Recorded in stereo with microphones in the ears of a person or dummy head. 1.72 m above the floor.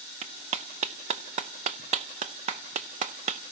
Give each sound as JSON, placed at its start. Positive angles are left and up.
{"t": 0.2, "sound": "a clap", "side_deg": -40, "distance_m": 0.7}